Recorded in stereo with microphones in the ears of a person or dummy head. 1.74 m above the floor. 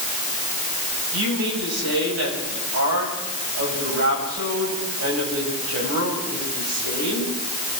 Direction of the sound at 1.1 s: 90° right.